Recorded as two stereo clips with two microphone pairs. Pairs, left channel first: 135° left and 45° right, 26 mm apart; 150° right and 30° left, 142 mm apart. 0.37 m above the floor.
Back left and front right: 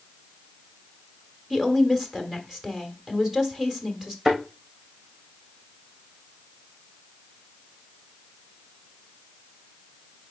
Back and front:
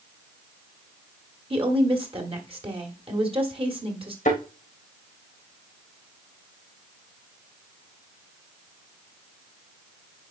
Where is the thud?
115° right, 4 m.